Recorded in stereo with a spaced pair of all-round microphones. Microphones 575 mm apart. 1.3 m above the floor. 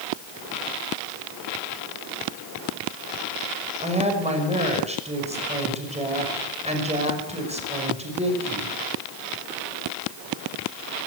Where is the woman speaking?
10° right (ahead or behind), 5.5 m.